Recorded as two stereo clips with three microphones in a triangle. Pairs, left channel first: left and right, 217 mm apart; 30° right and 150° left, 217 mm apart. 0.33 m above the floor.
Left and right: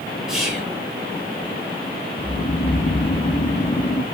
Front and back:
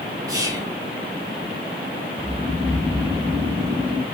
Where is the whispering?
175° right, 1.5 m.